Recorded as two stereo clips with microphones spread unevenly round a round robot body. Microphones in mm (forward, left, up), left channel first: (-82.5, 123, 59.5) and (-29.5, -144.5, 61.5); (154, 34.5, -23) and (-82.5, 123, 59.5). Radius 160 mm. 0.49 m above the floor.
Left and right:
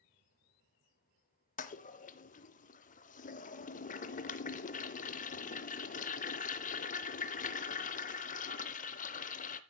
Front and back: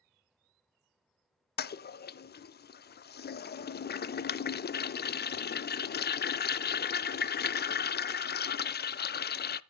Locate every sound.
1.6 s a toilet flushing: 35° left, 0.5 m